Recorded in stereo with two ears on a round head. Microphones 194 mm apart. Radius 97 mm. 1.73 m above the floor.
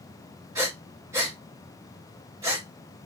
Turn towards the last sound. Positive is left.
turn(degrees=-15)  # may be behind; listen again after turning